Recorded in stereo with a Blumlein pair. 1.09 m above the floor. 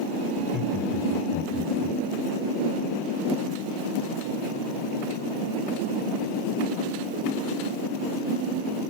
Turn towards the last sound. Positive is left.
turn(degrees=5)